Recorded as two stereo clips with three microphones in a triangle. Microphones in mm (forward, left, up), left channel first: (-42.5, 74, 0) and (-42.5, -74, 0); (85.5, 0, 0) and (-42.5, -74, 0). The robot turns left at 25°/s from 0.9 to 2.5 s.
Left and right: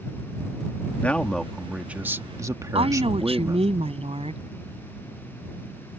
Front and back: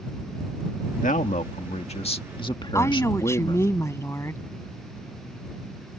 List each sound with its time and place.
0.9 s a man speaking: 15° left; by 3.7 s 25° right
2.8 s a woman speaking: 40° right